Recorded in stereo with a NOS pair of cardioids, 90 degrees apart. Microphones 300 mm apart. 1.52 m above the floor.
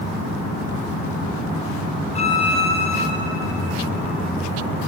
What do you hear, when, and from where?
2.1 s a violin: 20° left, 6 m